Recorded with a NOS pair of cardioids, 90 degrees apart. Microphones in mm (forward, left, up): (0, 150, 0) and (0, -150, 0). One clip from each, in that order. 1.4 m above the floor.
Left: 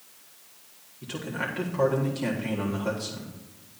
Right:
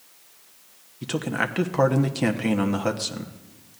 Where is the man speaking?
65° right, 1.5 m.